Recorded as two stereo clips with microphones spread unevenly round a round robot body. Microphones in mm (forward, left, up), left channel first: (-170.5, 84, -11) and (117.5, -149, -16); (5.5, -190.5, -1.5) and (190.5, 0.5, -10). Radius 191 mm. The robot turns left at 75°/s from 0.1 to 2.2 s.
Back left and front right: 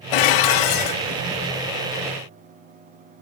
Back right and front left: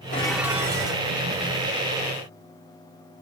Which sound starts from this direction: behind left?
Dishes clattering, at 0.1 s.